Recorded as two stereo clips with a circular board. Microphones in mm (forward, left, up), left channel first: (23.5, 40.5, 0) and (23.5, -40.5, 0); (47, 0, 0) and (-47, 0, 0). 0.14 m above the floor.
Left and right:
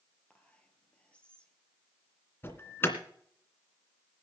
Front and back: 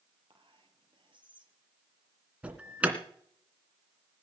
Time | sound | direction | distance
0.3 | whispering | 165° left | 3.5 m
2.4 | an alarm | 115° left | 2 m